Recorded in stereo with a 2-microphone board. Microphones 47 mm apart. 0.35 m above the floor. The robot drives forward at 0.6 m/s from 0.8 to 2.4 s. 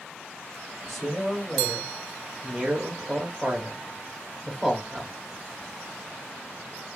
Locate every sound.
0.9 s a man speaking: 5° right (ahead or behind), 1.8 m